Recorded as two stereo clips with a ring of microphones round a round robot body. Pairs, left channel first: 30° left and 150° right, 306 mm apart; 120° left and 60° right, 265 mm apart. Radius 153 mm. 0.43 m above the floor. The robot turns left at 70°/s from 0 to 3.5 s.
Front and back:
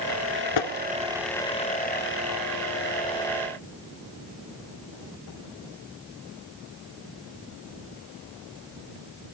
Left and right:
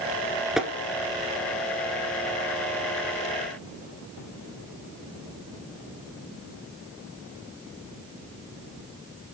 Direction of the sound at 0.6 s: 30° left.